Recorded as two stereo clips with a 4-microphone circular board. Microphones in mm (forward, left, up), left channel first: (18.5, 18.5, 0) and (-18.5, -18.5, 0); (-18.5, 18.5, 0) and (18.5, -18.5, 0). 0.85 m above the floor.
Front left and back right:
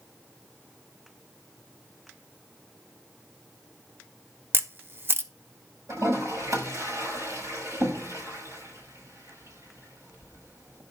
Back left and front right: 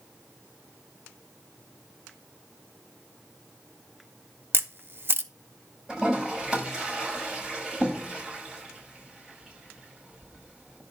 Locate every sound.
4.5 s a camera shutter: 90° right, 0.7 m
5.9 s a toilet flushing: 125° right, 5.5 m